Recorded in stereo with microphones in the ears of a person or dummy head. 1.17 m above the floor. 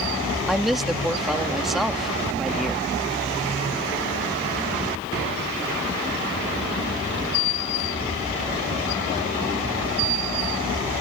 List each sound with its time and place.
0.5 s a woman speaking: 5° right (ahead or behind)